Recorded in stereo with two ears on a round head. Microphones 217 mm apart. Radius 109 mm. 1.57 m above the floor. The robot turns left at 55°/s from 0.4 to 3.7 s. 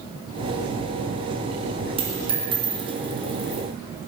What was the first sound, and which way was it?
A dropped coin, 25° right (ahead or behind).